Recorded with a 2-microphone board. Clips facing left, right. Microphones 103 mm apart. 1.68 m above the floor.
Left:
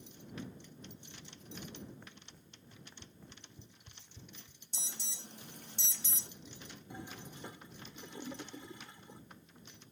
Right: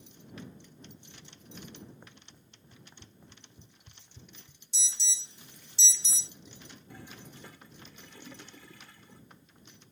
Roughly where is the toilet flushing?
Left.